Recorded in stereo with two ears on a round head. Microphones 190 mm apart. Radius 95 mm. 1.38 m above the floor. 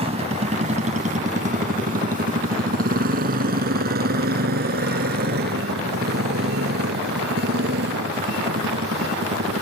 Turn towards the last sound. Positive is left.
turn(degrees=-55)  # may be behind; listen again after turning